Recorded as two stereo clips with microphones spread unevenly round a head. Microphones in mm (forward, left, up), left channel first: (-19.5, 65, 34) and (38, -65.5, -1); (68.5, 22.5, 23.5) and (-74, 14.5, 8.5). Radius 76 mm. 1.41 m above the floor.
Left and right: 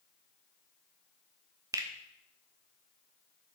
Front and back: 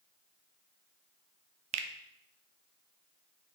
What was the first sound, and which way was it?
A finger snap, 140° right.